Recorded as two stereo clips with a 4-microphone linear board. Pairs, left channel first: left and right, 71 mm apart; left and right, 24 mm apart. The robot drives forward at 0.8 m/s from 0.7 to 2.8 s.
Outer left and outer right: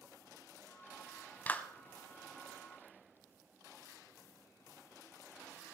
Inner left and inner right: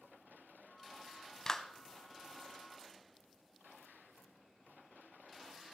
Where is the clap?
25° left (ahead or behind), 0.9 m; by 1.6 s 20° left (ahead or behind), 0.9 m.